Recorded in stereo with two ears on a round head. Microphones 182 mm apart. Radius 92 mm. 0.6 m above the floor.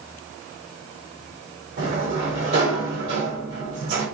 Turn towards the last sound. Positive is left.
turn(degrees=-65)  # may be behind; listen again after turning